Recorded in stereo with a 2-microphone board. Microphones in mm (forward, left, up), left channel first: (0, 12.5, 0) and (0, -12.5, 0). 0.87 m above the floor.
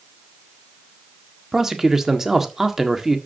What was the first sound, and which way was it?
A man speaking, 15° right (ahead or behind).